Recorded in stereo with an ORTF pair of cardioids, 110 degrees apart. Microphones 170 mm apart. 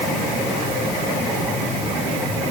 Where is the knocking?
I don't hear knocking.